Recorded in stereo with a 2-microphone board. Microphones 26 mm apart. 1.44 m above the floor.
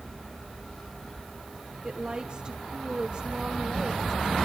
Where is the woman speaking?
35° right (ahead or behind), 1.4 m.